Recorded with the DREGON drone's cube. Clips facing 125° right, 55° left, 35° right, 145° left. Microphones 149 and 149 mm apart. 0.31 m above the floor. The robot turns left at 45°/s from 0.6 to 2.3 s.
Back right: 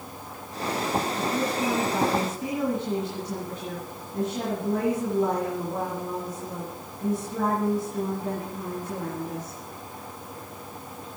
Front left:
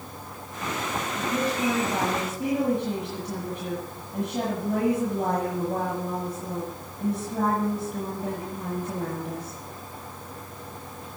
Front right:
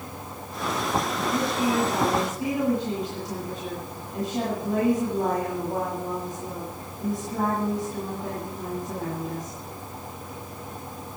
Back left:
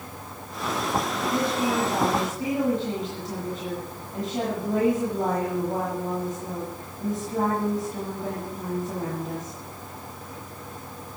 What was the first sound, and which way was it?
A woman speaking, 130° left.